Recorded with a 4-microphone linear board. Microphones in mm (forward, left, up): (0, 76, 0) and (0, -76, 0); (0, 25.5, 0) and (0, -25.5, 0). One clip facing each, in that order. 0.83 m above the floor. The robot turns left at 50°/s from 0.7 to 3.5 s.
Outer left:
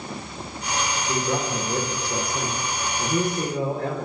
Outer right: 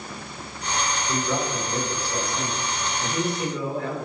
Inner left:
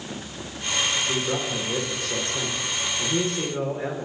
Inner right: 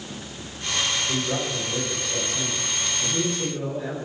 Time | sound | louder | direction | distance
1.1 | a man speaking | outer left 1 dB, even | 160° left | 3 m